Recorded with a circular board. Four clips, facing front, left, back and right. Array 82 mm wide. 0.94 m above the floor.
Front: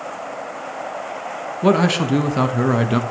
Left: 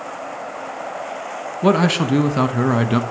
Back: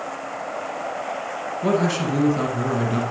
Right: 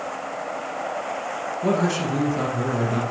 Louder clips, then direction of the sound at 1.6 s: Left 6 dB, front 5 dB; 55° left.